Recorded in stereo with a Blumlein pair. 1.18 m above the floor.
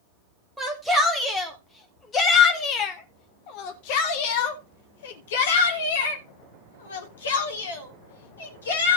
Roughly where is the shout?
Ahead.